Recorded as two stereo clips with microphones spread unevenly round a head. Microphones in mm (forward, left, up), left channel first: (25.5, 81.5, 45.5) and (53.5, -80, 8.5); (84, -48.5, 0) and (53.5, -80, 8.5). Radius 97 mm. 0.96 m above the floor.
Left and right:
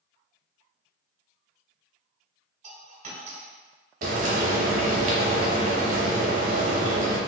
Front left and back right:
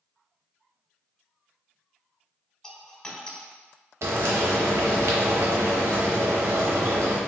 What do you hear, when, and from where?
2.6 s a dropped coin: 30° right, 1.2 m
4.0 s frying: 125° right, 0.7 m